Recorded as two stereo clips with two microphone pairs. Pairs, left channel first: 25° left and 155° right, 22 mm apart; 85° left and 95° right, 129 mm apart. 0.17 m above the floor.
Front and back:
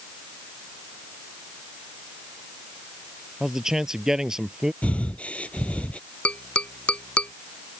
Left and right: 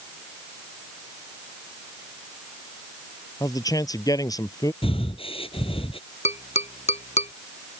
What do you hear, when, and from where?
3.4 s a man speaking: 145° left
4.8 s breathing: 45° left
6.2 s tapping: 55° left